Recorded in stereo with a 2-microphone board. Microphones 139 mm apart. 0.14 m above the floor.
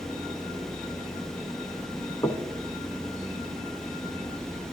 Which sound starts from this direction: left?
Knocking, at 2.2 s.